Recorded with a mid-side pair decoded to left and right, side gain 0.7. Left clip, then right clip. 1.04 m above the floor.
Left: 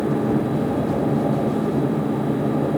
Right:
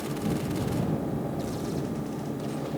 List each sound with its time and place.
0.0 s a machine running: 45° left